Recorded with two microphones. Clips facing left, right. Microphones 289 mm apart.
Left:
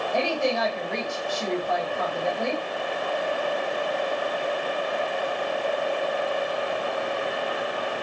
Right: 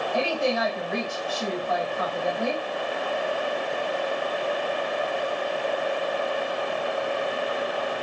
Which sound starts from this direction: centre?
A woman speaking, at 0.1 s.